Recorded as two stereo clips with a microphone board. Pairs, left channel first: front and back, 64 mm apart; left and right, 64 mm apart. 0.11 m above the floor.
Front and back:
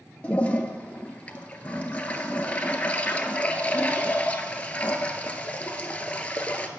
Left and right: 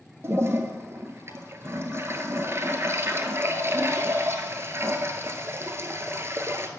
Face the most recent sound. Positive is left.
turn(degrees=-60)